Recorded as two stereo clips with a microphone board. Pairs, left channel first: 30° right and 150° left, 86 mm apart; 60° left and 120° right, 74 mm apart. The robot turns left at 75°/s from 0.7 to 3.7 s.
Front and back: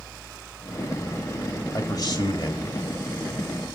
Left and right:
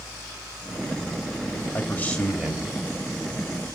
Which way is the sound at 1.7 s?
15° left.